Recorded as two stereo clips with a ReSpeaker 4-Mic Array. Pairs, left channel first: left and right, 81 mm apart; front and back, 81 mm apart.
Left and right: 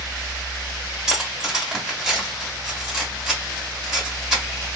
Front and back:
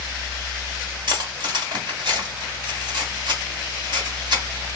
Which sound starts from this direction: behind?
Cutlery clinking, at 1.1 s.